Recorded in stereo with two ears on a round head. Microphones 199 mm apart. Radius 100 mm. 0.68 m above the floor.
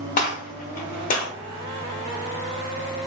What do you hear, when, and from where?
0.2 s a gunshot: 40° left (ahead or behind), 0.7 m